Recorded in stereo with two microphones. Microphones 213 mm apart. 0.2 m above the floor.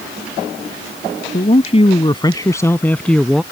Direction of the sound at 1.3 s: 35° left (ahead or behind).